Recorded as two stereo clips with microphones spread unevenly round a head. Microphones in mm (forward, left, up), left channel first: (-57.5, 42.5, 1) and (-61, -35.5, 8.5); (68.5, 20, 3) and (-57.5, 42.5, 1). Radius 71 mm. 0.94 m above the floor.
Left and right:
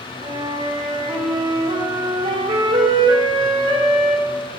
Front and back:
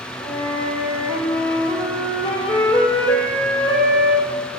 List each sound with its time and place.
0.2 s a flute: 85° right, 3.5 m